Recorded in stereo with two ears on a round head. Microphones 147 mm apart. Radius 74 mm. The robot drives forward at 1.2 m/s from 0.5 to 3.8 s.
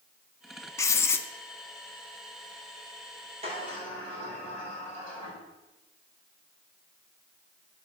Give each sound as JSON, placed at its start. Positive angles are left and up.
{"t": 0.8, "sound": "writing", "side_deg": 20, "distance_m": 0.5}
{"t": 3.4, "sound": "a sliding door", "side_deg": -40, "distance_m": 6.0}